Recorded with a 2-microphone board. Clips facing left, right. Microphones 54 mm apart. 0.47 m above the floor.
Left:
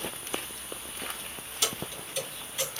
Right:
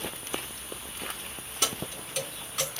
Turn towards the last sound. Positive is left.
turn(degrees=-80)